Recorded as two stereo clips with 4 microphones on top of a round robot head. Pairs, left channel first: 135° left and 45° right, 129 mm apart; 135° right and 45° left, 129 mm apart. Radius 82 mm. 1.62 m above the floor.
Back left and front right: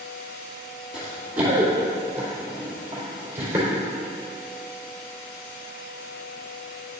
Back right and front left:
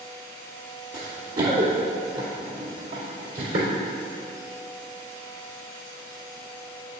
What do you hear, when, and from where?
0.9 s running footsteps: 35° left, 2.5 m; by 3.7 s 30° left, 4.5 m